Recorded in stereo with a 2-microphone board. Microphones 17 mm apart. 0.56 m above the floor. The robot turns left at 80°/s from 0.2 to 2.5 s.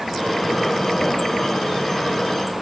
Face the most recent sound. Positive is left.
No sound to turn to.